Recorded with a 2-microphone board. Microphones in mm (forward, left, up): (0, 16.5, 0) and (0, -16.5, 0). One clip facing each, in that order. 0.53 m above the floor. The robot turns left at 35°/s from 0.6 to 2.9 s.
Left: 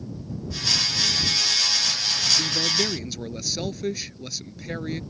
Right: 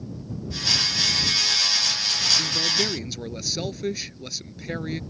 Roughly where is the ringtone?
No ringtone in this recording.